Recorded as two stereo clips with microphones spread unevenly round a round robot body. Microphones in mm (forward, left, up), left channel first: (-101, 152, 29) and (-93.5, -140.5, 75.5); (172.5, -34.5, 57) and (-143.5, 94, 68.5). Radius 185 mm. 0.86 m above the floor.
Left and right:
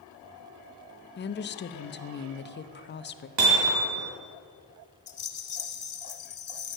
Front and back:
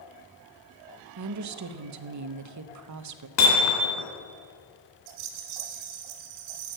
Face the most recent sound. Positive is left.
turn(degrees=145)